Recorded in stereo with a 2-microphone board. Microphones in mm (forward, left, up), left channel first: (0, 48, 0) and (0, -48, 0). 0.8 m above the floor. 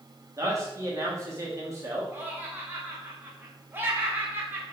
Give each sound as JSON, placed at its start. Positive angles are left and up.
{"t": 0.4, "sound": "a man speaking", "side_deg": -30, "distance_m": 1.4}
{"t": 2.1, "sound": "laughter", "side_deg": -20, "distance_m": 0.7}